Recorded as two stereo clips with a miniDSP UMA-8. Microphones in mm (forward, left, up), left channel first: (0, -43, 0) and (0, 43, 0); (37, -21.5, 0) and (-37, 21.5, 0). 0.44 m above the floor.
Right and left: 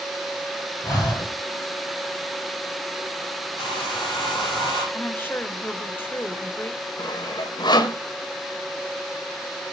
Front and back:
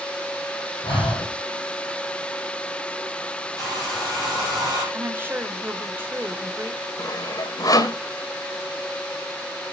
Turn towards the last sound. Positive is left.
turn(degrees=-65)